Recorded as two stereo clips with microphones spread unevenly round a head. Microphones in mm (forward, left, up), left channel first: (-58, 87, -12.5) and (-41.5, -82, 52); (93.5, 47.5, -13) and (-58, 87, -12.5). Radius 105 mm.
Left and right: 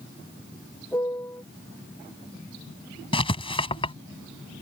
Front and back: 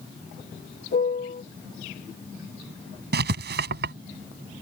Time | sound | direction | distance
0.9 | a piano | 15° left | ?
3.1 | writing | 160° left | ?